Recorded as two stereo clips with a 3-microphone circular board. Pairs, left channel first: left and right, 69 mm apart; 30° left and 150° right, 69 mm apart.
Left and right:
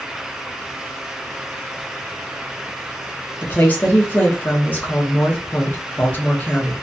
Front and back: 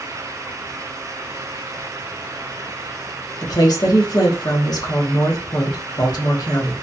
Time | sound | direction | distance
3.4 | a woman speaking | 30° left | 1.0 m